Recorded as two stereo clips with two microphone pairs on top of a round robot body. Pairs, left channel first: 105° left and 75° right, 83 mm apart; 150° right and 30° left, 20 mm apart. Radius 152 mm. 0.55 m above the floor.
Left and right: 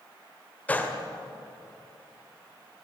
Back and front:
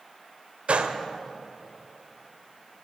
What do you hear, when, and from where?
0.7 s a gunshot: 35° left, 1.9 m